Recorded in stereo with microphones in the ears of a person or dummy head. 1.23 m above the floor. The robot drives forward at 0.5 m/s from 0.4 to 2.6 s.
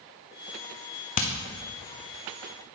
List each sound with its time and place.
1.2 s hammering: 40° left (ahead or behind), 0.6 m; by 1.3 s 35° left (ahead or behind), 0.7 m